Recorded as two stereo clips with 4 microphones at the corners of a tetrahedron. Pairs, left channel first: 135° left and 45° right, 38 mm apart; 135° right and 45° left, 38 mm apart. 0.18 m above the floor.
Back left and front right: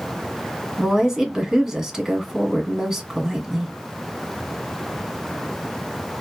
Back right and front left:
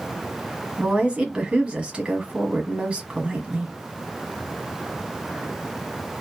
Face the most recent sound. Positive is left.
turn(degrees=30)